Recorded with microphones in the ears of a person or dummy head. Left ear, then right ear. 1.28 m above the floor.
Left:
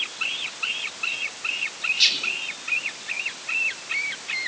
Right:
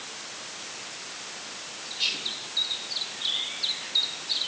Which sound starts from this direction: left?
Whispering, at 2.0 s.